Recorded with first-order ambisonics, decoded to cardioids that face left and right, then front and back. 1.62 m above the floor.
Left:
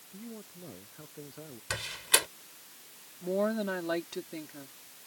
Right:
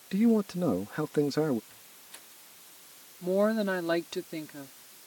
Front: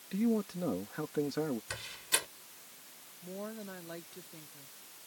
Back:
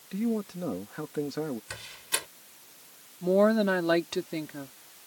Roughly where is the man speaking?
Right.